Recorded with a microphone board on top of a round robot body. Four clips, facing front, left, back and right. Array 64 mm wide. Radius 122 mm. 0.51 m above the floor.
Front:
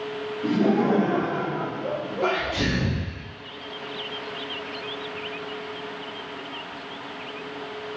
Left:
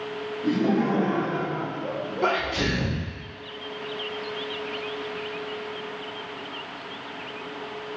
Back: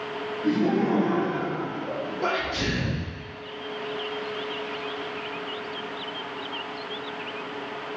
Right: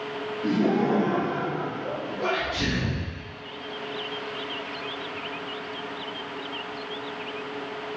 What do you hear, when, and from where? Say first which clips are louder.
0.4 s laughter: even, front 2 dB; 5° right, 2.5 m; by 2.9 s 45° left, 2.5 m
2.2 s a sneeze: left 3 dB, front 2 dB; 65° left, 2 m